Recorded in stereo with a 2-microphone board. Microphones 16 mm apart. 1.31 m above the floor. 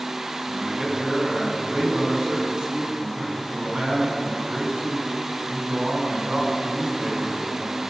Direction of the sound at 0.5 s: 60° right (ahead or behind).